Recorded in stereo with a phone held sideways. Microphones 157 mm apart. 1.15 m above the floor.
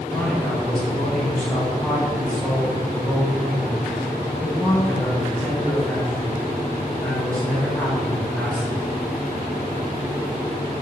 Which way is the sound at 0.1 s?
5° left (ahead or behind).